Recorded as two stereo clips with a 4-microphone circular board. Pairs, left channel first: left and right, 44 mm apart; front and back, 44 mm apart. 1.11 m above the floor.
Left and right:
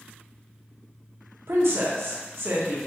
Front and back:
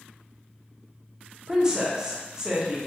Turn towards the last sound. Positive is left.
turn(degrees=-105)